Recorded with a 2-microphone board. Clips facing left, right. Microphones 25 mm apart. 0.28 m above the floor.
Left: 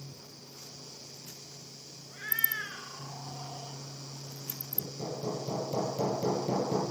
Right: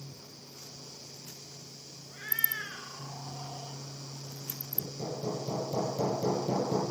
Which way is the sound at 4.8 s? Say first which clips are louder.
Even; 45° left (ahead or behind).